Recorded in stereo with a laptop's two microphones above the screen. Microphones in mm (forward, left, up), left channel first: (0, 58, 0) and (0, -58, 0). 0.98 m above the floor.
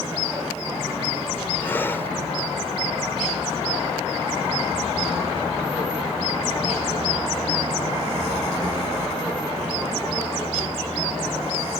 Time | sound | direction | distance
1.6 | breathing | 20° left (ahead or behind) | ?